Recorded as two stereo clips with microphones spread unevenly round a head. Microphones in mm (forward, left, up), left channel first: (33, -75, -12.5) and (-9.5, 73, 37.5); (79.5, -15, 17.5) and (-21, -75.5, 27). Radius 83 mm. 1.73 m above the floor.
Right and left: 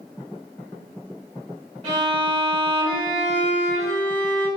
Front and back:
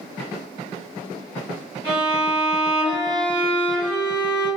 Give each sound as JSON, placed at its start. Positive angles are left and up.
{"t": 1.8, "sound": "a violin", "azimuth_deg": 115, "distance_m": 1.8}